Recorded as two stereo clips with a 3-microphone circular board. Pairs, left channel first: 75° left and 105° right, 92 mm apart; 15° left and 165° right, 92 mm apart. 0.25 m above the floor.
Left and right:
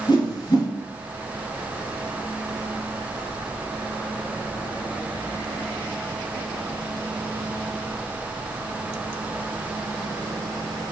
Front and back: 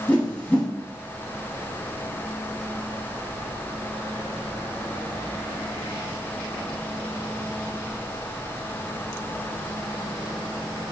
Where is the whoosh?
85° left, 1.9 m.